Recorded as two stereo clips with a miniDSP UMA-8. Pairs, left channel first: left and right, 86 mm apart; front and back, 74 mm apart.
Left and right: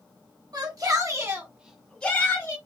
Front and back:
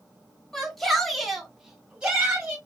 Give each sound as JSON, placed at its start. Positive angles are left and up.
{"t": 0.5, "sound": "a shout", "azimuth_deg": -85, "distance_m": 1.7}